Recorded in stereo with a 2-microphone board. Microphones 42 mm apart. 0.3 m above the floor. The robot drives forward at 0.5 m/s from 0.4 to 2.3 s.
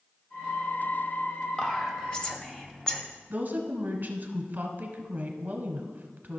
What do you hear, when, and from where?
1.6 s whispering: 20° left (ahead or behind), 1.0 m; by 3.0 s 15° left (ahead or behind), 1.2 m
3.3 s a woman speaking: 45° right (ahead or behind), 1.4 m